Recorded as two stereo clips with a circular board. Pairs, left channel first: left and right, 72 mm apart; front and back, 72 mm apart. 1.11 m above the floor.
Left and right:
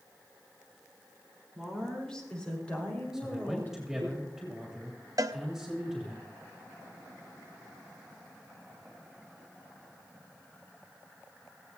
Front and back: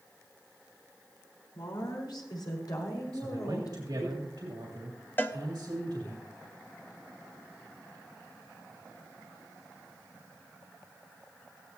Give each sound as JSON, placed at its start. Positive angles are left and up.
{"t": 1.6, "sound": "a woman speaking", "azimuth_deg": 5, "distance_m": 4.0}
{"t": 3.1, "sound": "a man speaking", "azimuth_deg": -175, "distance_m": 2.5}
{"t": 5.2, "sound": "a cowbell", "azimuth_deg": -60, "distance_m": 0.7}